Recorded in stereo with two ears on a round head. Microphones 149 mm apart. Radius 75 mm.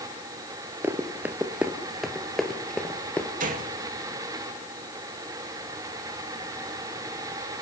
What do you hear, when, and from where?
0.8 s running footsteps: 10° right (ahead or behind), 1.7 m; by 3.3 s 10° left (ahead or behind), 1.9 m
3.4 s a gunshot: 50° right (ahead or behind), 2 m